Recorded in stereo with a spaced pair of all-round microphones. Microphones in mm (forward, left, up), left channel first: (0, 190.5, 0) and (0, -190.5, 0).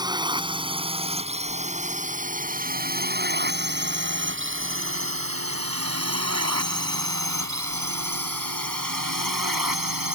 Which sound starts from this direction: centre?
A drone, at 0.0 s.